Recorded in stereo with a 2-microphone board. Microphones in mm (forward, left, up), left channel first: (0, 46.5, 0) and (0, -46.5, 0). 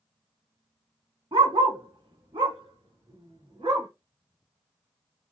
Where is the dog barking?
70° right (ahead or behind), 1.2 m; by 3.9 s 80° right, 2.5 m.